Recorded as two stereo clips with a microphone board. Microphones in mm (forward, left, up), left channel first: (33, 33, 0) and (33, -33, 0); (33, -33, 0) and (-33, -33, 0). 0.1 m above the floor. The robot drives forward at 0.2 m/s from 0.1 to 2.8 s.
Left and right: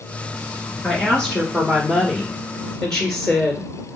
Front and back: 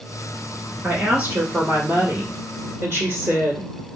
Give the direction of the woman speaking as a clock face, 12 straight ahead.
7 o'clock.